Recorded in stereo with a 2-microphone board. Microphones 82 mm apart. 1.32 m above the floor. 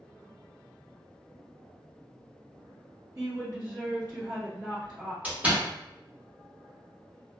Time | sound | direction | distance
3.1 | a woman speaking | 50° right (ahead or behind) | 1.8 m
5.2 | a door slam | 15° right (ahead or behind) | 0.9 m